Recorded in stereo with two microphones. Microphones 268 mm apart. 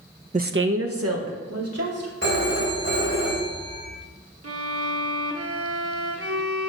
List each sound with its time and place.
0.3 s a woman speaking: 25° right (ahead or behind), 0.5 m; by 2.1 s 65° right (ahead or behind), 3 m
2.2 s a phone ringing: 60° right (ahead or behind), 3.5 m
4.4 s a violin: 60° right (ahead or behind), 0.8 m